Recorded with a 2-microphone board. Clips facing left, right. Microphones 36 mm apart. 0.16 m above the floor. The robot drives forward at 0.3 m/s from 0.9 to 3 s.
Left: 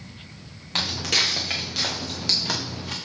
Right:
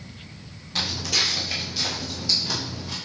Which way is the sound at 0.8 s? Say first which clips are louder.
Left 2 dB; 55° left (ahead or behind).